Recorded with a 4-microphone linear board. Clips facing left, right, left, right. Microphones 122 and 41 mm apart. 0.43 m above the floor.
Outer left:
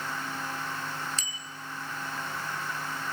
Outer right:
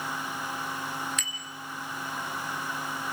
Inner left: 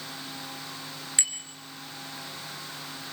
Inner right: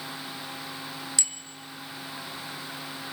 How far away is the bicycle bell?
About 4 m.